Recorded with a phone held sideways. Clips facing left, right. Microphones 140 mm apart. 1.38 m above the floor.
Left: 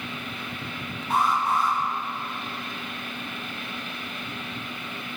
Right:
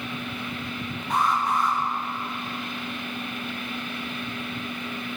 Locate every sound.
1.1 s an alarm: 5° left (ahead or behind), 5.5 m